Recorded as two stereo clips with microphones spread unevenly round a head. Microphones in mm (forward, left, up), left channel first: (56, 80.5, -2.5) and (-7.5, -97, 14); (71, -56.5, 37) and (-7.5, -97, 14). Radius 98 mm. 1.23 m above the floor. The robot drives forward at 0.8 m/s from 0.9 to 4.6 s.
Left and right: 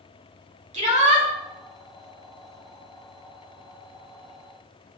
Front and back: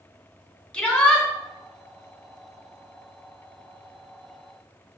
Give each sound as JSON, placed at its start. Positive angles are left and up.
{"t": 0.7, "sound": "a shout", "azimuth_deg": -55, "distance_m": 3.0}